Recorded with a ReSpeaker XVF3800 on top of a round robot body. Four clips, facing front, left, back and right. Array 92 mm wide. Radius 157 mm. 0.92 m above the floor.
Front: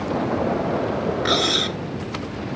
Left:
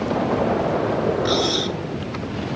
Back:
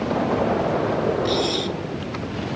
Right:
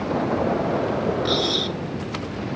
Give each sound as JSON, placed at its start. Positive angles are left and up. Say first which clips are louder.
{"t": 1.2, "sound": "cutlery clinking", "louder": "left 2 dB, front 1 dB", "azimuth_deg": 10}